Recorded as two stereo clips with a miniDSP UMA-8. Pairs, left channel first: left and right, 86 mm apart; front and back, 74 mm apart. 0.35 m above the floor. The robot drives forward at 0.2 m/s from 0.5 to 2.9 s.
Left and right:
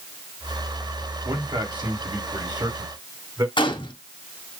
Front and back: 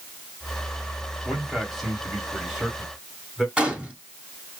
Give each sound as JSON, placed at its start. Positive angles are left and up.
{"t": 1.2, "sound": "a man speaking", "azimuth_deg": -90, "distance_m": 2.0}
{"t": 3.6, "sound": "a gunshot", "azimuth_deg": 105, "distance_m": 1.3}